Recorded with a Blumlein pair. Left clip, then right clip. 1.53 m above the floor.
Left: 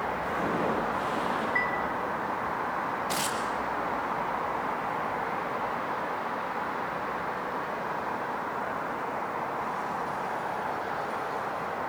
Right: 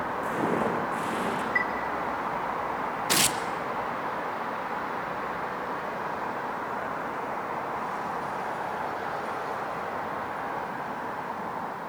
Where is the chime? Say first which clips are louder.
Right 2 dB; 10° right, 2 m.